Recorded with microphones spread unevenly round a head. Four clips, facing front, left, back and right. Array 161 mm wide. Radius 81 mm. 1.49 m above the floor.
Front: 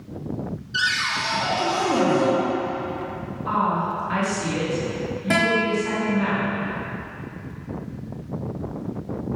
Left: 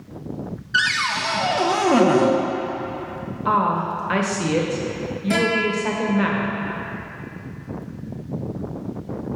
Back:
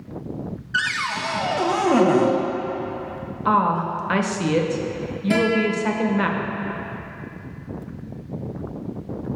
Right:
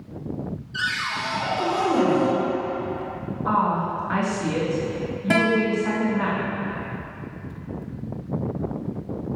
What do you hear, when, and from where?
0.7 s a cupboard door: 120° left, 0.5 m
3.5 s a woman speaking: 135° left, 1.0 m
5.3 s a guitar: 65° right, 1.5 m